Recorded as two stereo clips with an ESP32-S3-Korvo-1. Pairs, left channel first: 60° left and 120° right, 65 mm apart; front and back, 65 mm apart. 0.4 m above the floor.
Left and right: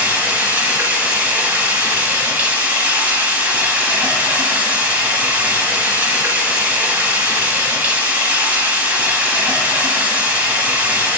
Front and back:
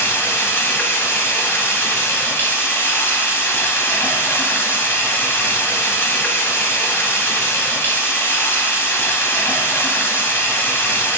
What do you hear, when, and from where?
0.0 s running water: 55° right, 1.4 m